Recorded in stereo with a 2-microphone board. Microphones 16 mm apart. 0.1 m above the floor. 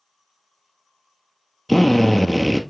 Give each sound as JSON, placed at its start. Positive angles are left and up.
{"t": 1.7, "sound": "a drill", "side_deg": 10, "distance_m": 1.1}